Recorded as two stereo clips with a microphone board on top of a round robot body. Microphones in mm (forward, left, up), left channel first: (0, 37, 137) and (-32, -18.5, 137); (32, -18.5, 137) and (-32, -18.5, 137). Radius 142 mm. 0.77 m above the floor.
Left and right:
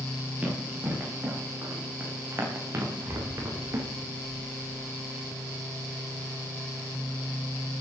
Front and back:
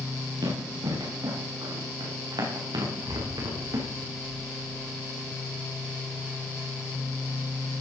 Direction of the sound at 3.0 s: 65° right.